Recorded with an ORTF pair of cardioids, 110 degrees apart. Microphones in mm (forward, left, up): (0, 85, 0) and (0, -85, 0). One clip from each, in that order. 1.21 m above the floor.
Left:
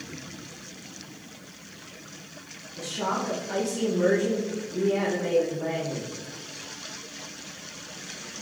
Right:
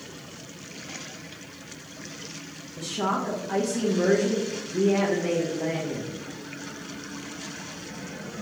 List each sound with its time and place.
2.8 s a woman speaking: 20° right, 1.0 m